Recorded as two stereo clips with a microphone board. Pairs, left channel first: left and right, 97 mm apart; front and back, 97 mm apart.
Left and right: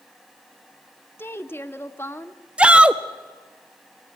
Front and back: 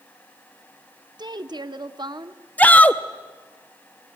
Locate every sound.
1.2 s a woman speaking: 150° left, 1.0 m
2.6 s a shout: 35° right, 0.5 m